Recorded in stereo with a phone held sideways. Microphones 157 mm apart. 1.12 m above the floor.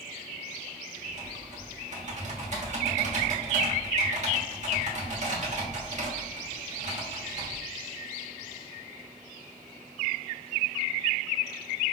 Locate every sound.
1.0 s typing on a keyboard: 50° right (ahead or behind), 1.3 m